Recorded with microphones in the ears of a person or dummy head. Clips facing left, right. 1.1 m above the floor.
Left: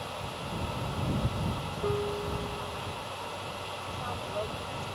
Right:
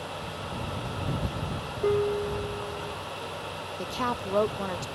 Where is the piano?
25° right (ahead or behind).